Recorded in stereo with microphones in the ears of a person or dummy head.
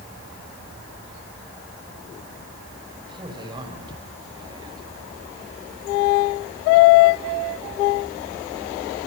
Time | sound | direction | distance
3.1 | a man speaking | 25° right (ahead or behind) | 6 m